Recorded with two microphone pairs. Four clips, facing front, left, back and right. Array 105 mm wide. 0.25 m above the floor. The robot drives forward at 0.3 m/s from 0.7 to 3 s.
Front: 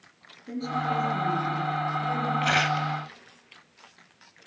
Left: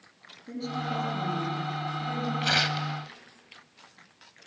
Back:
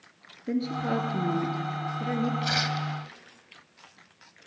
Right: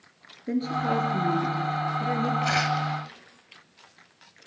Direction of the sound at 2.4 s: 10° left.